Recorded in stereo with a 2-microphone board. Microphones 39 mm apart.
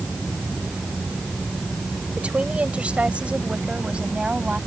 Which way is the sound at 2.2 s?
35° right (ahead or behind).